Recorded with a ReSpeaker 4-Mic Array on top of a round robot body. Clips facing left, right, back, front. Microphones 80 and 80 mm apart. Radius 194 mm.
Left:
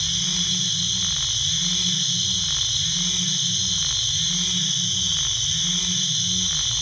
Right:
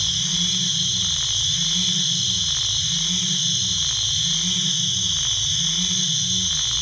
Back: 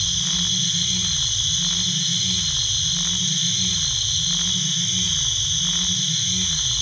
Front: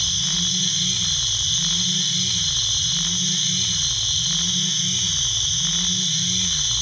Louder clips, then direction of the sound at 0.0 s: Right 1 dB, even; 80° right.